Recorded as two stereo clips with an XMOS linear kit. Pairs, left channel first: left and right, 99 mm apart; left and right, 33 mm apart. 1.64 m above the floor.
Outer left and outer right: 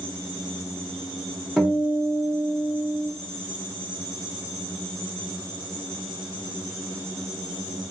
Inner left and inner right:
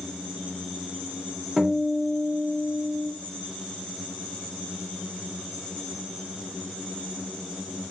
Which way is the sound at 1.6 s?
5° right (ahead or behind).